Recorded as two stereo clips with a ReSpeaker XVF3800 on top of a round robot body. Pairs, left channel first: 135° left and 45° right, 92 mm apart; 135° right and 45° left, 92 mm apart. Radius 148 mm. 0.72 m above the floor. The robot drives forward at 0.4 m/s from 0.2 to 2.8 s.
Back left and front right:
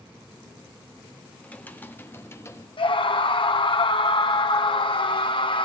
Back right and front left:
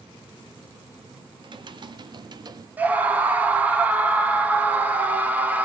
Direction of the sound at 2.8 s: 115° left.